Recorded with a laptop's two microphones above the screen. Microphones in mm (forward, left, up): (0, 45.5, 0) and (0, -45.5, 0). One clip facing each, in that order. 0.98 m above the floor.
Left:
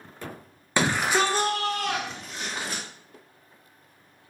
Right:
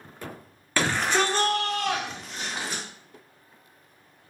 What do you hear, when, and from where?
0.8 s a shout: 15° left (ahead or behind), 0.7 m; by 2.8 s centre (ahead or behind), 1.9 m